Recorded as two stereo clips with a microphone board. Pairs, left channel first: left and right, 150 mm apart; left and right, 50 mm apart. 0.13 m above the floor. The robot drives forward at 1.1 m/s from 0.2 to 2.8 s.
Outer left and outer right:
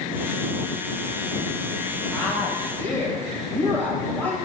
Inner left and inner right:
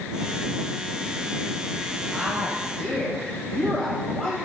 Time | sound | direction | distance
2.1 | a woman speaking | 15° left (ahead or behind) | 2.5 m